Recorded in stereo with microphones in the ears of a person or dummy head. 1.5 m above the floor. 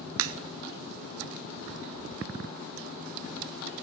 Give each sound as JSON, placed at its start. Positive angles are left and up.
{"t": 0.2, "sound": "a crack", "side_deg": -65, "distance_m": 1.0}